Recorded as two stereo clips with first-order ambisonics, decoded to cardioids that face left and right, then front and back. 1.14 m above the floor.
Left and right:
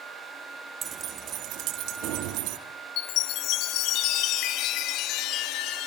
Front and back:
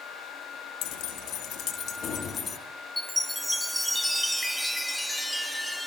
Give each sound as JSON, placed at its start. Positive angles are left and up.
{"t": 0.8, "sound": "keys jangling", "azimuth_deg": -25, "distance_m": 1.2}
{"t": 3.0, "sound": "a chime", "azimuth_deg": 85, "distance_m": 1.3}